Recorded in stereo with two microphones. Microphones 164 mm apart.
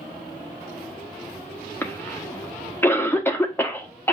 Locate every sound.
1.8 s a cough: 15° left (ahead or behind), 1.1 m